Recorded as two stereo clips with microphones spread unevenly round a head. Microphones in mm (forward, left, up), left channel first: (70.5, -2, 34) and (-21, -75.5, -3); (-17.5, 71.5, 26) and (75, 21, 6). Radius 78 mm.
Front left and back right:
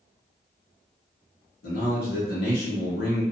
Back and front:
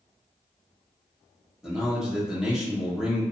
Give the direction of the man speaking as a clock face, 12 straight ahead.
10 o'clock.